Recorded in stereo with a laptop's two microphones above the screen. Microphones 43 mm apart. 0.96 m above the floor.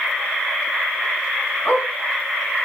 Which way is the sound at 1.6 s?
65° left (ahead or behind).